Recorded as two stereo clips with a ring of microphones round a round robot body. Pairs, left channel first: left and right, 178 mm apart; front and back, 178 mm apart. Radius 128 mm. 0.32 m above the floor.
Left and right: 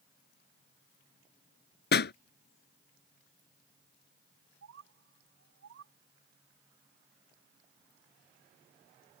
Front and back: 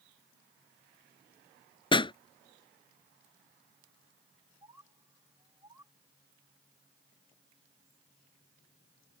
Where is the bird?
100° right.